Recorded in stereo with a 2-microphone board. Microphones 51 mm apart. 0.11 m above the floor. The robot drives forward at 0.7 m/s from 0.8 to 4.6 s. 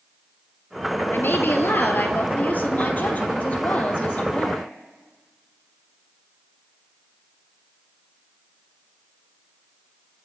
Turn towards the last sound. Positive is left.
turn(degrees=25)  # may be behind; listen again after turning